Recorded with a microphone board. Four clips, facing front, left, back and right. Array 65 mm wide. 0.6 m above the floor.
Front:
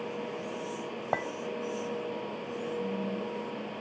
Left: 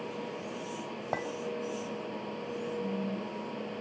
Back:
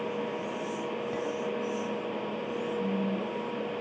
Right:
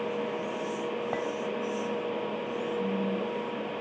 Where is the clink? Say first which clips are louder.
Left 1 dB, front 8 dB; 5° left, 2.5 m.